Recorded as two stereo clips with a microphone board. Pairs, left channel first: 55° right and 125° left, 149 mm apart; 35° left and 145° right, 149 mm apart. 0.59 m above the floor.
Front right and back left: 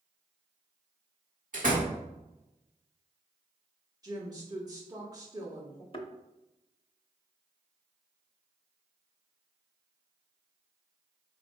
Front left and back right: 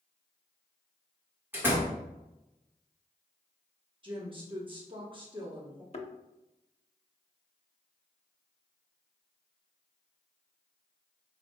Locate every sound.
1.5 s a door slam: 140° left, 1.4 m
4.0 s a woman speaking: 175° left, 1.1 m
5.9 s a thud: 5° right, 0.6 m